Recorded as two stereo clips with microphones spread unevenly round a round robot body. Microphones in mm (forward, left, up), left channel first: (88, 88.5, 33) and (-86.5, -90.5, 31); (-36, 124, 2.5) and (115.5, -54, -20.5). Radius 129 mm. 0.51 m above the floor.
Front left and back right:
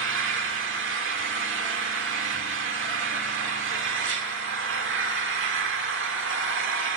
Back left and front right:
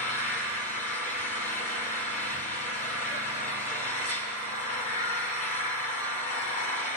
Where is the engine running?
165° right, 1.0 m.